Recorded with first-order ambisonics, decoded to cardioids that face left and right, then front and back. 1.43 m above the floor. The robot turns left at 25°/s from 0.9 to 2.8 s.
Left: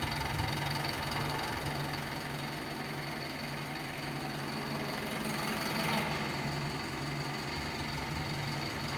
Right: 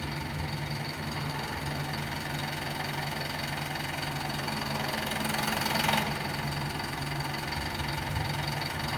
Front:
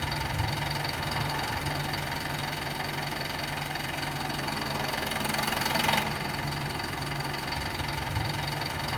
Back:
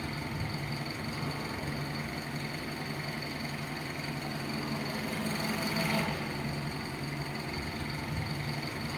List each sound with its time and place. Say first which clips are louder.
0.0 s an engine running: left 1 dB, front 7 dB; 25° left, 2.5 m; by 9.0 s 25° right, 2.5 m